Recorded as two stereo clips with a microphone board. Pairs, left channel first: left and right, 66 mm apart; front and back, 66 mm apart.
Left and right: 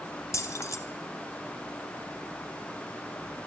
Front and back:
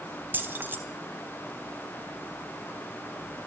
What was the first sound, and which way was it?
Keys jangling, 125° left.